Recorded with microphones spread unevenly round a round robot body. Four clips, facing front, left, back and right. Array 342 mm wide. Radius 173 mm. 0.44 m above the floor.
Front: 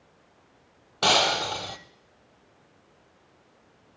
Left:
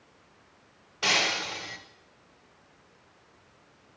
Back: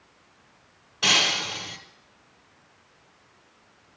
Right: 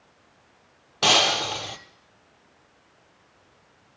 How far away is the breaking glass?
About 1.0 m.